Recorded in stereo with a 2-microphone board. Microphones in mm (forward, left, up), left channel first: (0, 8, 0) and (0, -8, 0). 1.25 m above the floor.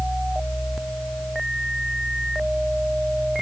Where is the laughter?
No laughter in this recording.